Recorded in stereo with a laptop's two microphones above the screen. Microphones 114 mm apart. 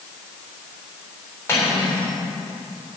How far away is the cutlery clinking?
About 2.5 m.